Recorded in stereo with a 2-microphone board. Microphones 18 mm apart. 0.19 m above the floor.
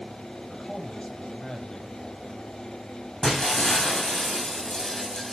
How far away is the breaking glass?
About 7 m.